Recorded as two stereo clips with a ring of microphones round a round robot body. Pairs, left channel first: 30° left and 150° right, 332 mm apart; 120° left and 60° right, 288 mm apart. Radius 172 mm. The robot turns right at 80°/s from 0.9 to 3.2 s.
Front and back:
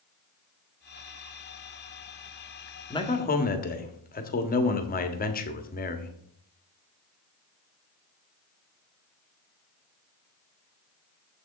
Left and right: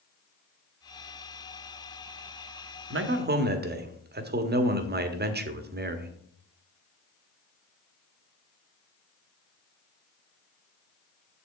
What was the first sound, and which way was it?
A man speaking, 45° right.